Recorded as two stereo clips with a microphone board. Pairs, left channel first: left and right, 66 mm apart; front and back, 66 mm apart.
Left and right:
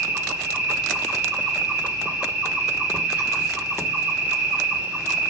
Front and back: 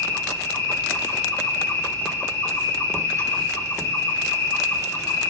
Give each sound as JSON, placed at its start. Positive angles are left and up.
{"t": 0.0, "sound": "an insect", "azimuth_deg": -25, "distance_m": 1.5}